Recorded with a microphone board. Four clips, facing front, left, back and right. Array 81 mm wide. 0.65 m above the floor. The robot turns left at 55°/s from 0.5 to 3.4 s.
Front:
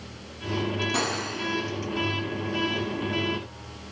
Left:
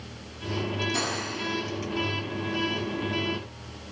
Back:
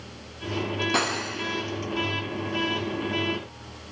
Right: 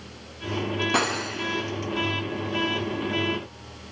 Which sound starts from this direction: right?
Cutlery clinking, at 0.9 s.